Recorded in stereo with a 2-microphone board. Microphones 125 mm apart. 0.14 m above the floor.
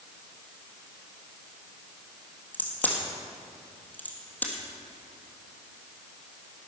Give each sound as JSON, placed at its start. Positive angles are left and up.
{"t": 2.5, "sound": "a crack", "side_deg": 15, "distance_m": 3.0}